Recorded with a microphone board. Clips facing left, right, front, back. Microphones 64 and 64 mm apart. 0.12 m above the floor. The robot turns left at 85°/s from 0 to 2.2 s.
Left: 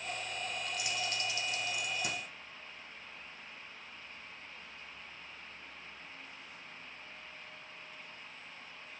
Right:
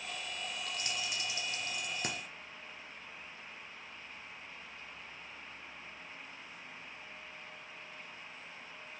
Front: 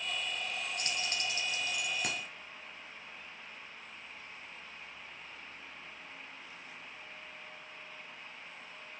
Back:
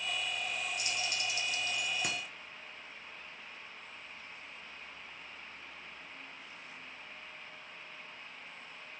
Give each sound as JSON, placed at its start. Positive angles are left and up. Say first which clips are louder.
{"t": 0.8, "sound": "keys jangling", "louder": "left 2 dB, even", "azimuth_deg": 10, "distance_m": 1.2}